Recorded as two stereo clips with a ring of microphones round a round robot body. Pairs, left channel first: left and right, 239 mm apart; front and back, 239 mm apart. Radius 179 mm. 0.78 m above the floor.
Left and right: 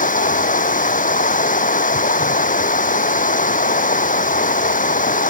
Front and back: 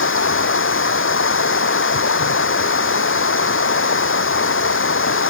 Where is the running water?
35° left.